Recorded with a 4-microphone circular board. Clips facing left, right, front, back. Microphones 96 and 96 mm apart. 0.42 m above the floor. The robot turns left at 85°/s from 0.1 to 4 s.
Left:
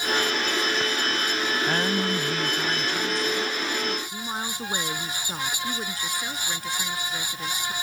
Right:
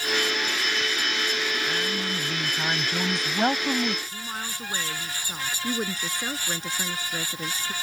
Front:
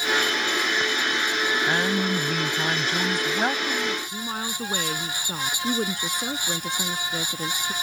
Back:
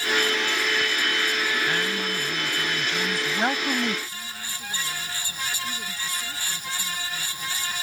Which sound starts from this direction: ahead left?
A woman speaking, at 1.7 s.